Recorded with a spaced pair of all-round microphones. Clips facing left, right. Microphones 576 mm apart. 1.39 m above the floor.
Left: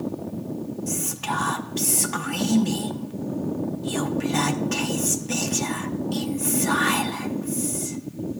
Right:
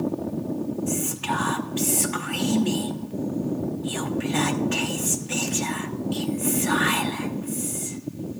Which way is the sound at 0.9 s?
65° left (ahead or behind).